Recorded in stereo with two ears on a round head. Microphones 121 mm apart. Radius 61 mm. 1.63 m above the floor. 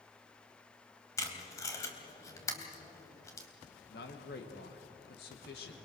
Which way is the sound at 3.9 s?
85° left.